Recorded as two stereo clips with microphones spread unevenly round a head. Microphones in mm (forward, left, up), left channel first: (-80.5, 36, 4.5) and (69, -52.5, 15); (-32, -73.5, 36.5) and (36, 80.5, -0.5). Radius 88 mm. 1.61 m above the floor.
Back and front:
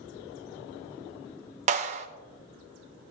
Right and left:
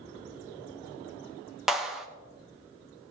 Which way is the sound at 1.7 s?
35° right.